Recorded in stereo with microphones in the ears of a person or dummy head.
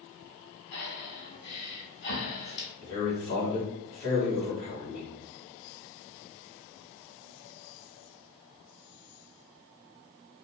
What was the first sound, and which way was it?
Breathing, 65° left (ahead or behind).